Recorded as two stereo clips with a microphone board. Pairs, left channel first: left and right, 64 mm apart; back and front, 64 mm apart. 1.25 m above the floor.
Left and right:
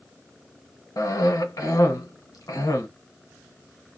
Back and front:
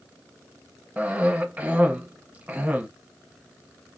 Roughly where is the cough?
Ahead left.